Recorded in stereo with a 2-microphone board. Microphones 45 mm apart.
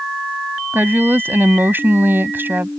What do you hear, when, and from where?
0.7 s a woman speaking: 55° right (ahead or behind)